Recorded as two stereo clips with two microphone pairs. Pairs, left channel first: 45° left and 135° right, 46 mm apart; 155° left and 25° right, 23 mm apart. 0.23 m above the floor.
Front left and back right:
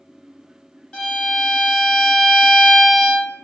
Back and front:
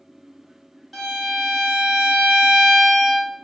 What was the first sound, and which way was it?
A violin, 65° left.